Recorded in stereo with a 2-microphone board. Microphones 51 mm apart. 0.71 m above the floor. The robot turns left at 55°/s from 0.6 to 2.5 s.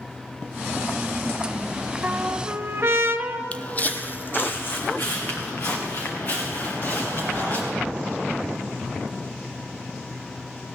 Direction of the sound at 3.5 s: 25° left (ahead or behind).